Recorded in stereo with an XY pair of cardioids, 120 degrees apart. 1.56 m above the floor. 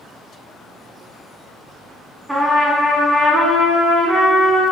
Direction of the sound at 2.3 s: 5° right.